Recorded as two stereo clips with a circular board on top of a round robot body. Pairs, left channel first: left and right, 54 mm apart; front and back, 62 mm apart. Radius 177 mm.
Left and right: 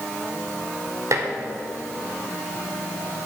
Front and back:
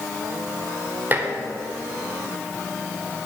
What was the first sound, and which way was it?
Dishes clattering, 120° right.